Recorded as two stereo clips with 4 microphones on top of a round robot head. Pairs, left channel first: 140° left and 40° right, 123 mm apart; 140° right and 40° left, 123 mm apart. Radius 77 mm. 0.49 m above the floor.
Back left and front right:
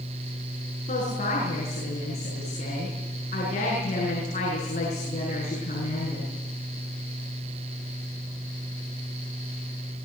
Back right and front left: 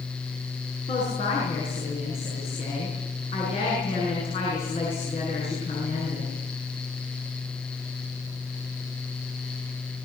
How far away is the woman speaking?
About 8.5 m.